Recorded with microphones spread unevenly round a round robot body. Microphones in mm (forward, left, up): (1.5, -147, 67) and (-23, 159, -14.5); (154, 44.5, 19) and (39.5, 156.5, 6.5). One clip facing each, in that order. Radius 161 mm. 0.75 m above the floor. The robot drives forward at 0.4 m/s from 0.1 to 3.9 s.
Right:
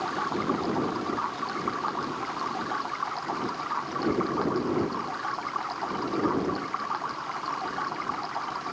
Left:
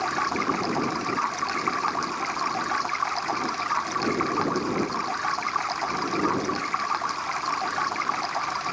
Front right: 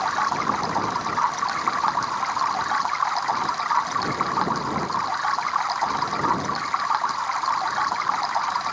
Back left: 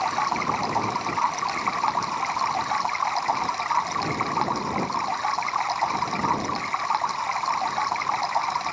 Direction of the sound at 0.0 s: 60° left.